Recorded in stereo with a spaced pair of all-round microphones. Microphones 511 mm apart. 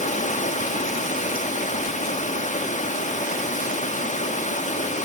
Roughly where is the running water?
Centre.